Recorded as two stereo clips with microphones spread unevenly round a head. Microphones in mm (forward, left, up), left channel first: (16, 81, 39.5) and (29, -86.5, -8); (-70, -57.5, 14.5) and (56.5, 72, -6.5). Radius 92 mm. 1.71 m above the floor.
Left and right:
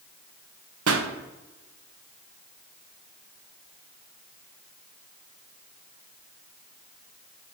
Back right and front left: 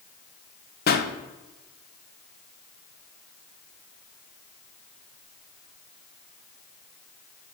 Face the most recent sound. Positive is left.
turn(degrees=-105)